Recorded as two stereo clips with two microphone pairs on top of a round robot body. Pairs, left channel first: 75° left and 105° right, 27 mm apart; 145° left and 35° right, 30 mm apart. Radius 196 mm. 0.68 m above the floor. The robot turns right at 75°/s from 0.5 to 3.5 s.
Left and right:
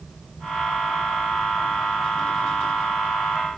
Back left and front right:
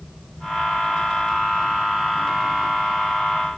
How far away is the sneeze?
No sneeze in this recording.